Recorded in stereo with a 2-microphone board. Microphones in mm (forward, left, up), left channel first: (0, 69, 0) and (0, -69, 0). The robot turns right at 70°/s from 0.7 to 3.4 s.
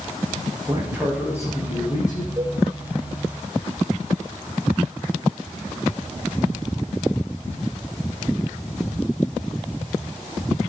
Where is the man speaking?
25° right, 6.5 m; by 2.3 s 85° left, 6.5 m.